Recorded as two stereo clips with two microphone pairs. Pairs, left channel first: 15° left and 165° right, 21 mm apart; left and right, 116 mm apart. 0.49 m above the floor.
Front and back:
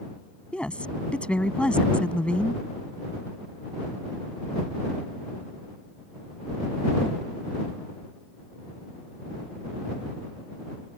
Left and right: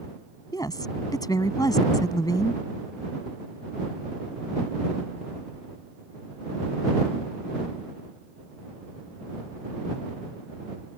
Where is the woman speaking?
30° left.